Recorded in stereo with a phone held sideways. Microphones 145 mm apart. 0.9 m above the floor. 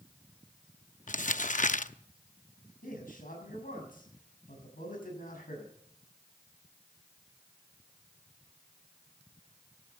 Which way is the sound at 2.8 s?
85° left.